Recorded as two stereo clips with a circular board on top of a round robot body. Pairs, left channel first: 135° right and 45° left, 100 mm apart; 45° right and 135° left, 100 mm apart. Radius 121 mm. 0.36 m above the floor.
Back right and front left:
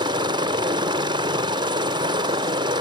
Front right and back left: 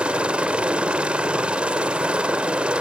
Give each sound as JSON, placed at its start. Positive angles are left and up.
{"t": 0.0, "sound": "a helicopter", "azimuth_deg": 60}